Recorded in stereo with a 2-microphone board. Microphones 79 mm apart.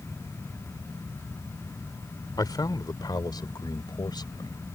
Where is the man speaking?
55° left (ahead or behind); by 4.8 s 70° left (ahead or behind).